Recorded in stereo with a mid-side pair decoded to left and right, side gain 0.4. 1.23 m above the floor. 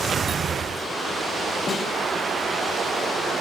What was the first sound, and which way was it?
A snare drum, 50° left.